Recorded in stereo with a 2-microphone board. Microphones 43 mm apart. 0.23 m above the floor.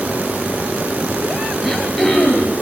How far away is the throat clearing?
About 5 m.